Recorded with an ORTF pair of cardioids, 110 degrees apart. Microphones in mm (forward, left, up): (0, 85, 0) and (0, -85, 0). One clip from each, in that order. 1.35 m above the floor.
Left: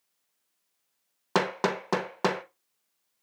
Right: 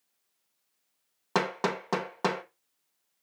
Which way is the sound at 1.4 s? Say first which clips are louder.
Left 2 dB; 15° left.